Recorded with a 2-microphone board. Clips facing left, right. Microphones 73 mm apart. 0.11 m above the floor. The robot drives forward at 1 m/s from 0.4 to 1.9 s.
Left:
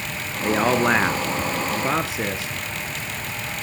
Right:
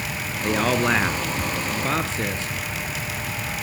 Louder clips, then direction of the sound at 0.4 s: Left 2 dB; 10° left (ahead or behind).